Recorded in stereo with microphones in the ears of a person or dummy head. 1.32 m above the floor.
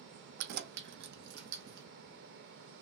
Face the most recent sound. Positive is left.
turn(degrees=-60)  # may be behind; listen again after turning